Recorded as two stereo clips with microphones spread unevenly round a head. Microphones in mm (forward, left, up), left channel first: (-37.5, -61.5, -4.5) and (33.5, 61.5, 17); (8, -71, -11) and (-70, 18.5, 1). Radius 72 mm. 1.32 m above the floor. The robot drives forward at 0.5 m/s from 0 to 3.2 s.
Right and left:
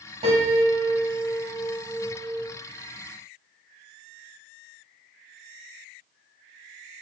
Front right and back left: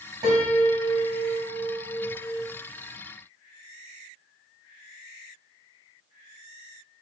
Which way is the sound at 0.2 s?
80° left.